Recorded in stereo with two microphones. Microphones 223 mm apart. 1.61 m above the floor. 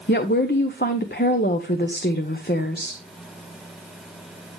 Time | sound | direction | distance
0.1 | a woman speaking | 50° left (ahead or behind) | 0.9 m